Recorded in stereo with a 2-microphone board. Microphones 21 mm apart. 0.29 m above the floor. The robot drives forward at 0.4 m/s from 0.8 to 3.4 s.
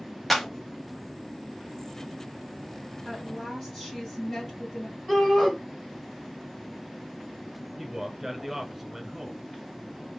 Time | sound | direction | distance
0.3 | a clap | 5° left (ahead or behind) | 0.9 m
3.0 | a woman speaking | 15° left (ahead or behind) | 1.9 m
5.1 | a shout | 15° left (ahead or behind) | 2.5 m
7.8 | a man speaking | 10° right (ahead or behind) | 1.0 m